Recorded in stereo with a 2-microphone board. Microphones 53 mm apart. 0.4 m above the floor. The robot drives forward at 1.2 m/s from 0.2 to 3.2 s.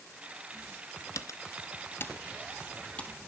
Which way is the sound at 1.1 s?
80° left.